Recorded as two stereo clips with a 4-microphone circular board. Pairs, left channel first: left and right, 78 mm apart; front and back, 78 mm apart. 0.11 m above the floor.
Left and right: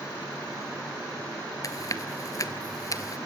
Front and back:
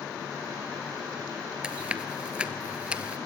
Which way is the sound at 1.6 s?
105° left.